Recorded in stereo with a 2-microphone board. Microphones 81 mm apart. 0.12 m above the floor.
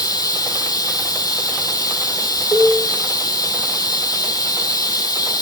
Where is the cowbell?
30° left (ahead or behind), 3.5 m.